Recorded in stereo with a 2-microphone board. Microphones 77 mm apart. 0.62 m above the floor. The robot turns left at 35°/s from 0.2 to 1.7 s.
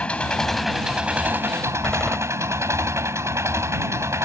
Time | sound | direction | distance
0.0 | an engine running | 15° left | ?
1.8 | a door slam | 10° left (ahead or behind) | ?